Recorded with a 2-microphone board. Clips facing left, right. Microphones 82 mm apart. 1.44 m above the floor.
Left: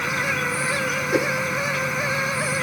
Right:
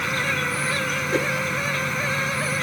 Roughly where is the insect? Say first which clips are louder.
Left 1 dB; centre.